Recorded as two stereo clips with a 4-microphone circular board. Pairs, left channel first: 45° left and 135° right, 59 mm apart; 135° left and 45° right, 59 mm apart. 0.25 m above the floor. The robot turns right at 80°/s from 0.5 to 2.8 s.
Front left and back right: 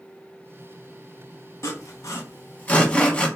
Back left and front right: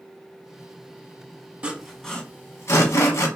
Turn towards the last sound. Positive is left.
turn(degrees=110)